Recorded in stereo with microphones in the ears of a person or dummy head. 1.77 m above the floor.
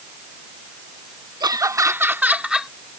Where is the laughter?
30° right (ahead or behind); by 2.7 s 5° right (ahead or behind).